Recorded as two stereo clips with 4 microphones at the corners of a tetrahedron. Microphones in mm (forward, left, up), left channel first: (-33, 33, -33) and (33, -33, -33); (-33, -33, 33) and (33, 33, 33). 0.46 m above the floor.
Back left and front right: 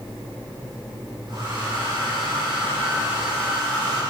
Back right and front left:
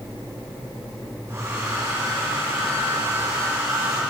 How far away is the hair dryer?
About 6.5 m.